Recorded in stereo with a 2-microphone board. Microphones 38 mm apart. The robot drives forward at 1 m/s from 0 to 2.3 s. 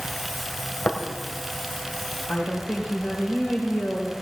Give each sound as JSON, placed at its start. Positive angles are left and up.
{"t": 0.8, "sound": "tapping", "side_deg": 70, "distance_m": 1.9}
{"t": 2.3, "sound": "a woman speaking", "side_deg": 60, "distance_m": 2.5}